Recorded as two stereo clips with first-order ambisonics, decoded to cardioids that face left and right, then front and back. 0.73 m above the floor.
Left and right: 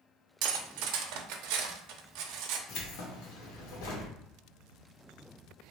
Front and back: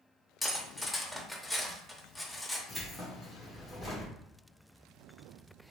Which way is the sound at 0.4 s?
85° right.